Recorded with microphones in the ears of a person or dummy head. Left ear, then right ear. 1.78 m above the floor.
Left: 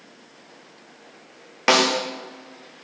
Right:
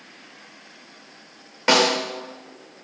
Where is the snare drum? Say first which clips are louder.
Even; 25° left (ahead or behind), 0.8 m.